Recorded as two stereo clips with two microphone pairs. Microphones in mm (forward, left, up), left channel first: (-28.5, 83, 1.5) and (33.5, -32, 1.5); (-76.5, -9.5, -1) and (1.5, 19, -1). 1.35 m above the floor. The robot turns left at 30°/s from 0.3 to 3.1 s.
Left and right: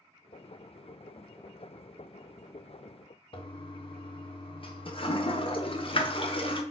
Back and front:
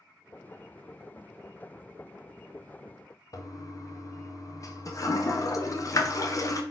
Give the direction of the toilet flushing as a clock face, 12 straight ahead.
7 o'clock.